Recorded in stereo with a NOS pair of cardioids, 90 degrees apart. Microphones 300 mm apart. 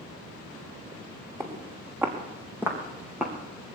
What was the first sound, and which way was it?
Footsteps, 10° right.